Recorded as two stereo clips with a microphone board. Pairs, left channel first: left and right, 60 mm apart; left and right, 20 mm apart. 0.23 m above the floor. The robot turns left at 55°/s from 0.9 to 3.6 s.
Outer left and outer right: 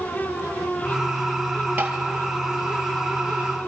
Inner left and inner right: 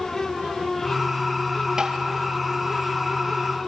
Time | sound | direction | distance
1.8 | tapping | 30° right (ahead or behind) | 2.5 m